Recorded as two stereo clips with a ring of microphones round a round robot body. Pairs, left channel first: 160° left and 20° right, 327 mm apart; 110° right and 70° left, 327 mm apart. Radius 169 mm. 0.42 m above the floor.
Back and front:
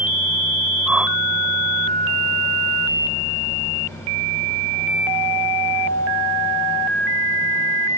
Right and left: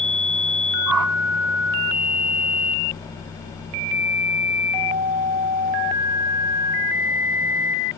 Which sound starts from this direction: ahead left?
A whoosh, at 0.9 s.